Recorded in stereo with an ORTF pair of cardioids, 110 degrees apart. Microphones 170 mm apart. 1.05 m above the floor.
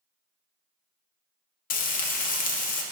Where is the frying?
55° left, 0.7 m.